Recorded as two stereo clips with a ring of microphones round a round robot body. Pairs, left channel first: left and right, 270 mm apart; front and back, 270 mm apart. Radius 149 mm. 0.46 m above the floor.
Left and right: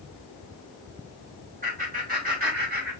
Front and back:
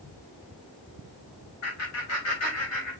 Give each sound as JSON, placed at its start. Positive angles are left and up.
{"t": 1.6, "sound": "laughter", "azimuth_deg": -25, "distance_m": 3.5}